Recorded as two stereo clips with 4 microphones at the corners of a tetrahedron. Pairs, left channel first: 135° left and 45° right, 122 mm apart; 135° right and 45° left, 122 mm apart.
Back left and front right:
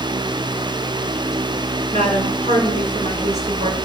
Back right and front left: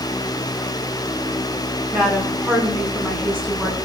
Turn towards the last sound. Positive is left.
turn(degrees=-30)